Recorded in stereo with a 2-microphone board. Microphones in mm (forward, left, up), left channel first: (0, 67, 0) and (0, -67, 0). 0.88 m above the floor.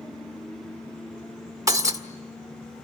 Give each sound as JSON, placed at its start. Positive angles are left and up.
{"t": 1.7, "sound": "breaking glass", "side_deg": -30, "distance_m": 1.6}